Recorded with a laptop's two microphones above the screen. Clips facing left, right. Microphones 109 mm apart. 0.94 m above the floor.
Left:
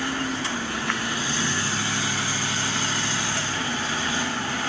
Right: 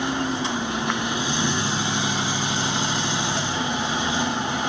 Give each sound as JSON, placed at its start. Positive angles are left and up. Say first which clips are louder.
{"t": 0.0, "sound": "a machine running", "louder": "right 3 dB", "side_deg": -20, "distance_m": 0.8}